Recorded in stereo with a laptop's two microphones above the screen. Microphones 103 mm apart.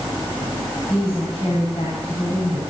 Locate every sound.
0.9 s a woman speaking: 65° left (ahead or behind), 5.5 m